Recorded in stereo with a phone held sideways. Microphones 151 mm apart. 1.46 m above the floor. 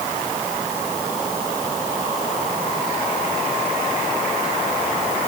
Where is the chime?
I don't hear a chime.